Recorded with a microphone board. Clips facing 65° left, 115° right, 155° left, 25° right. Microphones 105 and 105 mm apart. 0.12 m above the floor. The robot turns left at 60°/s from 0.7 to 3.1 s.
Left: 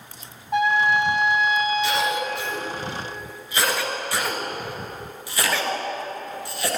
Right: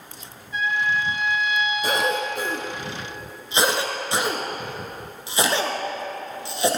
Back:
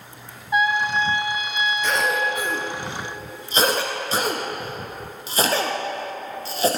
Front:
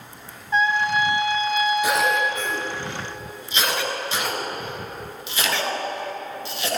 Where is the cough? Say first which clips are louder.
Even, front 2 dB; 95° right, 2.5 m; by 6.8 s 170° right, 2.5 m.